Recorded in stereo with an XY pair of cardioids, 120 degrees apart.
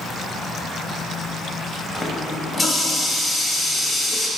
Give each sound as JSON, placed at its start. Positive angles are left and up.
{"t": 1.9, "sound": "a running tap", "azimuth_deg": 5, "distance_m": 1.3}